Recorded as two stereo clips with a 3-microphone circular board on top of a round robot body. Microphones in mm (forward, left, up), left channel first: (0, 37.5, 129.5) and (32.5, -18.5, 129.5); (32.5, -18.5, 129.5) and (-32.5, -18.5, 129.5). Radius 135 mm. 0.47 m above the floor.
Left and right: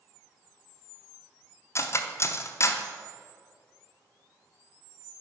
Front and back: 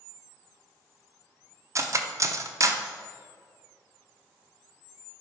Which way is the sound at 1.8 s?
155° left.